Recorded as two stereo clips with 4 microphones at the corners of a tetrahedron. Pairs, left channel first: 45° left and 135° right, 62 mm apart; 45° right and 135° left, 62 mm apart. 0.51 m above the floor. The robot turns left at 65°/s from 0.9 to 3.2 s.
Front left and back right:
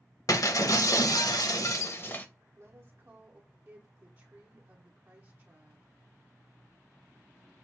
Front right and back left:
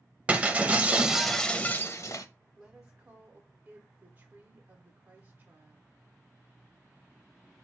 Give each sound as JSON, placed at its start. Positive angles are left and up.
{"t": 0.3, "sound": "breaking glass", "azimuth_deg": 65, "distance_m": 0.5}
{"t": 2.5, "sound": "a woman speaking", "azimuth_deg": -125, "distance_m": 1.0}